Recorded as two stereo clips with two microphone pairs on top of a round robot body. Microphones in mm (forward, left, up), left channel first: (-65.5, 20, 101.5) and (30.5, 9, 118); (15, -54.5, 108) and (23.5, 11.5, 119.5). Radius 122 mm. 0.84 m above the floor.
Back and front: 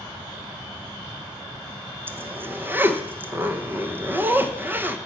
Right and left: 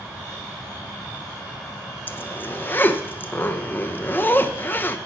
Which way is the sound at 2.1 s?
75° right.